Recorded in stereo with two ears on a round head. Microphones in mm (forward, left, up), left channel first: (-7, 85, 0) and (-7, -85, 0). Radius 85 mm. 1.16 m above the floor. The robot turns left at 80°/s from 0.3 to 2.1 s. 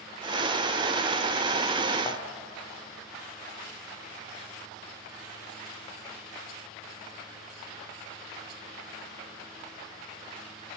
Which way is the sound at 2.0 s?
25° left (ahead or behind).